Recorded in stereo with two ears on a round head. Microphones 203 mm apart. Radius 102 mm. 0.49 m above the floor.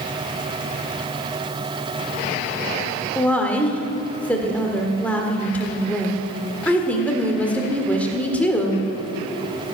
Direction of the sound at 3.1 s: 5° left (ahead or behind).